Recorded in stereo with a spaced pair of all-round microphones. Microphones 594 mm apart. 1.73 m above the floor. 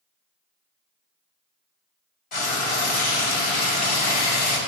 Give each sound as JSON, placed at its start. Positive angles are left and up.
{"t": 2.3, "sound": "frying", "side_deg": 55, "distance_m": 0.9}